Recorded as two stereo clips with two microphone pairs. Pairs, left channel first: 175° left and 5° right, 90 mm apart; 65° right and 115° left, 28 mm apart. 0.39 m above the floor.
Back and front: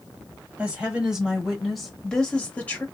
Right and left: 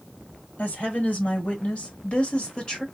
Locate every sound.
0.6 s a woman speaking: 80° right, 1.9 m; by 2.9 s 125° right, 1.4 m